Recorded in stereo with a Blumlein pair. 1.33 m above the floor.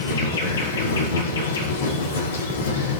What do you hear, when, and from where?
0.0 s an insect: 65° left, 5 m